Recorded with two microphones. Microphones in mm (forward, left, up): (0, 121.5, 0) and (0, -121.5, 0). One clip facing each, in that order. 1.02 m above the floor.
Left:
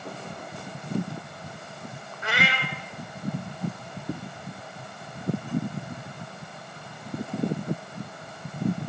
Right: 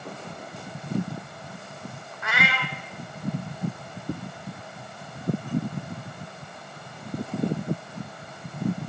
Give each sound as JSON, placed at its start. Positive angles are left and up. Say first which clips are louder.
{"t": 2.2, "sound": "a cat meowing", "louder": "left 1 dB", "side_deg": 35, "distance_m": 0.8}